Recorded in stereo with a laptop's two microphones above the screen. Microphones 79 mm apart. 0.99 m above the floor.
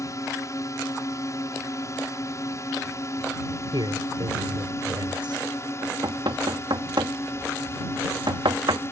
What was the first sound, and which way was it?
A drone, 40° left (ahead or behind).